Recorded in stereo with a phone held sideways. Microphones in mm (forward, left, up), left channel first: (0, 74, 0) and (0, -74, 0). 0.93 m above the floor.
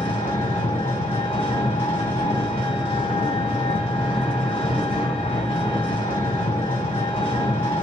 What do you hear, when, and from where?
0.0 s an engine running: 40° left (ahead or behind), 1.8 m